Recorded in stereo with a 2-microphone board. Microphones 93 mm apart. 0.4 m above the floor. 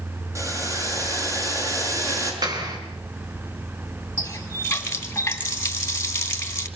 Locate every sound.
0.3 s boiling: 30° right (ahead or behind), 6.5 m
2.4 s a clap: 40° right (ahead or behind), 5.5 m
4.2 s a running tap: 25° left (ahead or behind), 2.5 m